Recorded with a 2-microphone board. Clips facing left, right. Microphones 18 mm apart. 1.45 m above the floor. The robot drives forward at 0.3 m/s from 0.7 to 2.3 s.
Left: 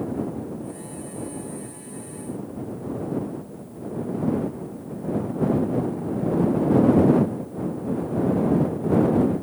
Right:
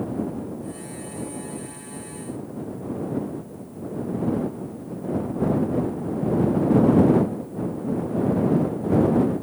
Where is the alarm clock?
I don't hear an alarm clock.